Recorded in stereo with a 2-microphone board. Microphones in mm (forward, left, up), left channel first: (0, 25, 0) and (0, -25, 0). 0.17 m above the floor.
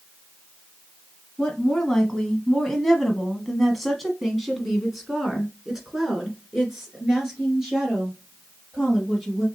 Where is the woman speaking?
10° left (ahead or behind), 1.4 m; by 9.4 s 10° right (ahead or behind), 3.5 m.